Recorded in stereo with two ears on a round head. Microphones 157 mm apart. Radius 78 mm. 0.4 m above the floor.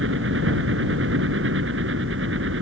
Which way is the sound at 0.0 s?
75° right (ahead or behind).